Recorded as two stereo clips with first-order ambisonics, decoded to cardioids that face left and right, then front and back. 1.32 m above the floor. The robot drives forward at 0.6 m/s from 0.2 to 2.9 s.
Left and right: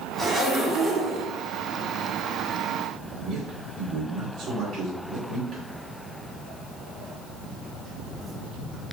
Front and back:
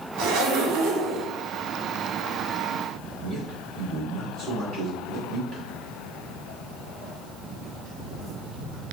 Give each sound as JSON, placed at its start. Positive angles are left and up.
{"t": 0.2, "sound": "a zipper", "azimuth_deg": -150, "distance_m": 3.0}
{"t": 3.2, "sound": "a man speaking", "azimuth_deg": -120, "distance_m": 3.5}
{"t": 5.7, "sound": "footsteps", "azimuth_deg": -90, "distance_m": 2.5}